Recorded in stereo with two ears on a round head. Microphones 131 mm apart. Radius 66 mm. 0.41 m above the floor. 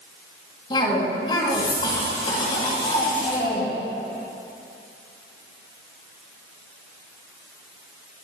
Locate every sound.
0.7 s a cough: 35° left (ahead or behind), 2.5 m